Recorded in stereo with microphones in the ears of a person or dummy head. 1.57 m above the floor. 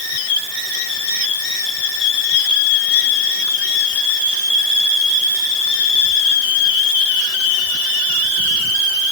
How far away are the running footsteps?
I don't hear running footsteps.